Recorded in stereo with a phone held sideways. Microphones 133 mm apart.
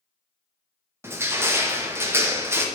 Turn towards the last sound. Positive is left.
turn(degrees=-20)  # may be behind; listen again after turning